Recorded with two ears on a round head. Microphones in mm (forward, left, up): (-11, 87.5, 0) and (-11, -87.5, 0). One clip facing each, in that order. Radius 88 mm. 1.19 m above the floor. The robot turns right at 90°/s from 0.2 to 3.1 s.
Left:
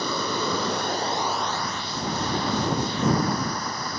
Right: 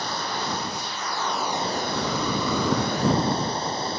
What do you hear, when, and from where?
0.0 s running water: 75° left; by 4.0 s 25° right